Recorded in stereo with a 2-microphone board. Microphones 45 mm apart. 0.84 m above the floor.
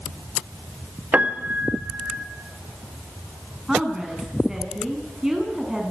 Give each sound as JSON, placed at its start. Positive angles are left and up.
{"t": 1.1, "sound": "a piano", "side_deg": -40, "distance_m": 1.5}
{"t": 3.7, "sound": "a woman speaking", "side_deg": -15, "distance_m": 8.0}